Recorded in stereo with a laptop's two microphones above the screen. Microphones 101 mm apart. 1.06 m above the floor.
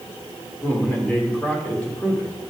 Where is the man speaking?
15° left (ahead or behind), 3 m.